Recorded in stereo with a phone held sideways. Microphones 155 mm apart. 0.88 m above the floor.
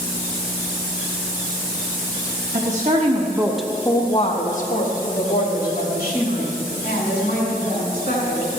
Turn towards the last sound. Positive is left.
turn(degrees=80)